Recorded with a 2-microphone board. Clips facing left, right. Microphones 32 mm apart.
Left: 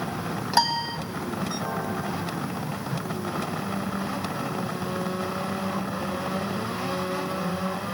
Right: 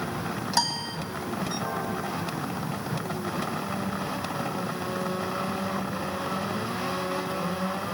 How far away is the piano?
About 1.2 m.